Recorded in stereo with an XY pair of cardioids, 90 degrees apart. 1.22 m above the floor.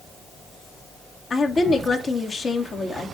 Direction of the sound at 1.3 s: 45° left.